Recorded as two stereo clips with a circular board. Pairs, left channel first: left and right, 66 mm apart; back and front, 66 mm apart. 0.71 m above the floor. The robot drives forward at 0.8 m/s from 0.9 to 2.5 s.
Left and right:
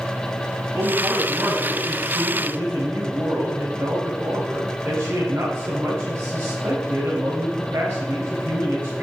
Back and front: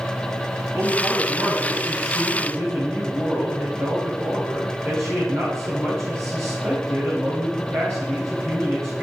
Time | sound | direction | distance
0.7 | a man speaking | 30° right | 4.5 m